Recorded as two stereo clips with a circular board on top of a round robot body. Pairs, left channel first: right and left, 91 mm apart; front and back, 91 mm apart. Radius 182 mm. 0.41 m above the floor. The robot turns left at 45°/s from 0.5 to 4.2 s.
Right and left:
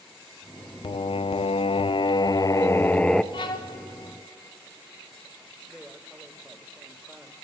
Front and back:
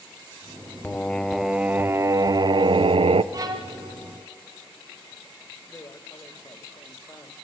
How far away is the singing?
About 0.5 m.